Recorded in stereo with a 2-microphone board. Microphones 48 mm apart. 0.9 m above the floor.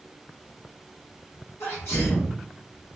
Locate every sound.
1.6 s a sneeze: 75° left (ahead or behind), 1.6 m